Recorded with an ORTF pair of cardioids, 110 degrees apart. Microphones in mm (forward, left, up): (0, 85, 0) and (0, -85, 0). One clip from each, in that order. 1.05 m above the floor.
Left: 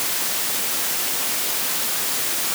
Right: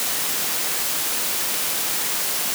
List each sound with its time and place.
Only background noise.